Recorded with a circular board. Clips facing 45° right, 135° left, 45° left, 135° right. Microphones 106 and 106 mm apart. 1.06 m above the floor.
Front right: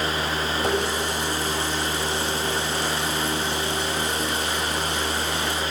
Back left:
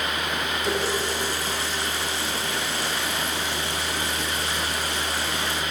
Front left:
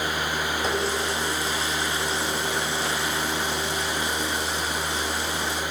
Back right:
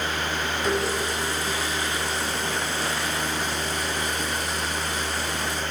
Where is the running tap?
20° right, 4.5 m.